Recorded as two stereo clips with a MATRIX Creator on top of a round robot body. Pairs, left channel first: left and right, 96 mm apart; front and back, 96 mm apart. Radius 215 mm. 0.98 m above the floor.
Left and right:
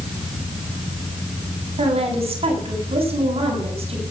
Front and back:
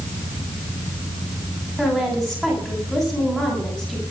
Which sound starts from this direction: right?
A woman speaking, at 1.8 s.